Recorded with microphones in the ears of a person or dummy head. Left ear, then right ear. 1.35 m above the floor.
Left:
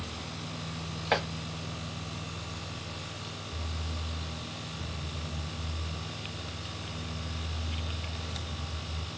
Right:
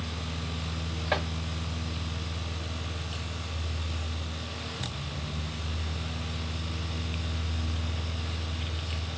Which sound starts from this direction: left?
Chopping, at 1.1 s.